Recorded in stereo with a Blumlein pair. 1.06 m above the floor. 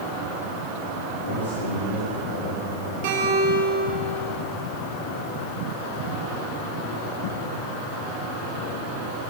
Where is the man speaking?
60° left, 7.5 m; by 2.9 s 55° left, 9.5 m.